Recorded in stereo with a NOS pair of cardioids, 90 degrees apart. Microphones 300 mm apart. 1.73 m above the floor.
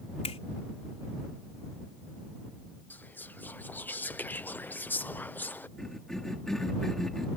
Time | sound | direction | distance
0.2 | a finger snap | 20° left | ?
2.9 | whispering | 5° left | ?
5.8 | a cough | straight ahead | ?